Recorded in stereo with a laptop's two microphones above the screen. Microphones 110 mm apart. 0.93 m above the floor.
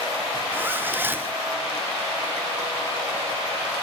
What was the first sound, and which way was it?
A zipper, 20° right (ahead or behind).